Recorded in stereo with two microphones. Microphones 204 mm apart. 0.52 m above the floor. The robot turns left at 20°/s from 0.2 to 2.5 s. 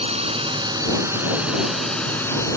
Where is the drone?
150° right; by 2.6 s 165° left.